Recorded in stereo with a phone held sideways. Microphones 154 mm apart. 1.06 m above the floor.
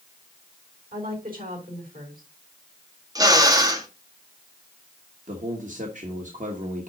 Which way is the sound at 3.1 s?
25° right (ahead or behind).